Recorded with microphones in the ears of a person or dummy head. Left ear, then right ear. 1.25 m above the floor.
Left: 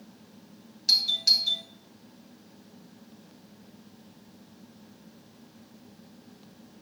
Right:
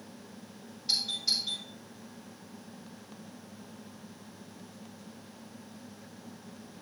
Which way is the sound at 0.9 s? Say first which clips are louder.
Left 7 dB; 70° left (ahead or behind).